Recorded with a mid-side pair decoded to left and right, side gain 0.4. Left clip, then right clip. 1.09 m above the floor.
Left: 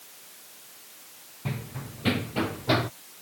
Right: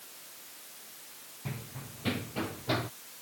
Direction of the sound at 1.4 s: 50° left.